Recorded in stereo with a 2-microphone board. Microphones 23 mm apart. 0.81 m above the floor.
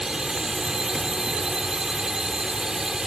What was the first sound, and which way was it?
A drone, 20° right (ahead or behind).